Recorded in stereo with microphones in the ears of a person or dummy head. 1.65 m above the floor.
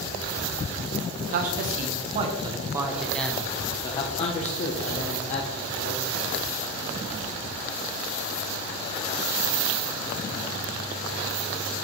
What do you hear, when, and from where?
1.2 s a man speaking: 55° right (ahead or behind), 1.1 m; by 6.2 s 55° left (ahead or behind), 1.9 m